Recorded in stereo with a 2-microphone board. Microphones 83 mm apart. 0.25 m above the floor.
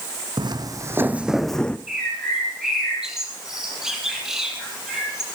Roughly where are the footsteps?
Right.